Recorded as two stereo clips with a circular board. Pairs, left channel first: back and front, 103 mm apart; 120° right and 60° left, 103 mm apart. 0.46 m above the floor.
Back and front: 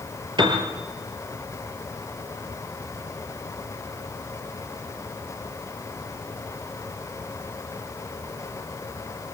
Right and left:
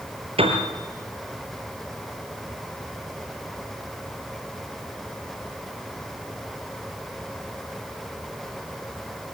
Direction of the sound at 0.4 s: 40° left.